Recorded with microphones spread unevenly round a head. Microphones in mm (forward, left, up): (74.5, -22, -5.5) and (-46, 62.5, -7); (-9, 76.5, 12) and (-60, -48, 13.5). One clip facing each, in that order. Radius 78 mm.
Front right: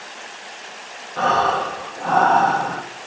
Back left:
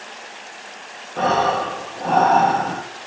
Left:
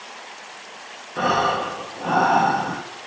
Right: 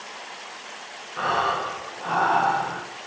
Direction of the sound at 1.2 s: 80° left.